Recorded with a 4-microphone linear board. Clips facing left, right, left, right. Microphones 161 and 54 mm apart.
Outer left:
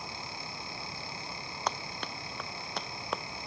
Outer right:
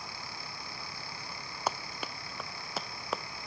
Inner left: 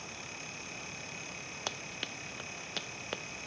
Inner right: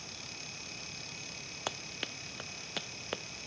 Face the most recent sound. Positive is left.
turn(degrees=0)  # may be behind; listen again after turning